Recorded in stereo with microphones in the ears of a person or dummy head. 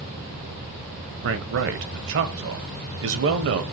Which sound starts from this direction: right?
A man speaking, at 1.2 s.